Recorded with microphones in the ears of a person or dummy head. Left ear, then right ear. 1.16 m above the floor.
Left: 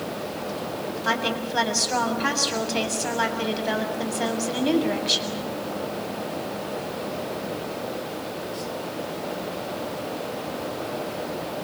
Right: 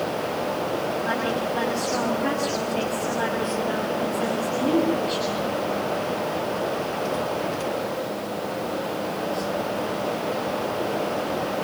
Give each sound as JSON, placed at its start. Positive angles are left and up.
{"t": 1.1, "sound": "a woman speaking", "side_deg": 45, "distance_m": 7.0}